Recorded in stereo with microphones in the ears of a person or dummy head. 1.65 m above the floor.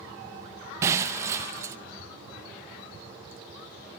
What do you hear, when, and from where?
0.8 s breaking glass: 25° right (ahead or behind), 1.0 m